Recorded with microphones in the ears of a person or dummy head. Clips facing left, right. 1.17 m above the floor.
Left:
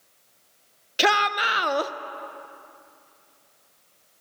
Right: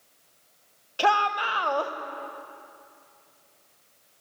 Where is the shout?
20° left (ahead or behind), 0.5 m.